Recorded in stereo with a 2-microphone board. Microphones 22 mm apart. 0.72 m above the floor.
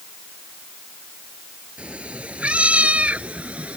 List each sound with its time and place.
1.8 s a cat meowing: 65° right (ahead or behind); by 3.8 s 85° right